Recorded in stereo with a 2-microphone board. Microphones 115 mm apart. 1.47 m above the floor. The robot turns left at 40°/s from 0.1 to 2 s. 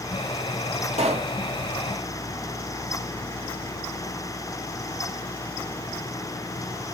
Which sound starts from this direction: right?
A pop, at 0.9 s.